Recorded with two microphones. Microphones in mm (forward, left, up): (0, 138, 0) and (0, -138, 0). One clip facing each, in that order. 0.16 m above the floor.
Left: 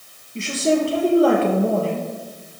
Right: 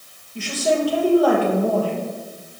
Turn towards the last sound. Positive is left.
turn(degrees=25)  # may be behind; listen again after turning